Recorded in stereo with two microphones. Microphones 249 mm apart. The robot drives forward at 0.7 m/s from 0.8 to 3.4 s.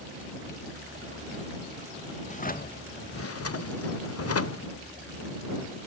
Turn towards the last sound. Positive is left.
turn(degrees=70)  # may be behind; listen again after turning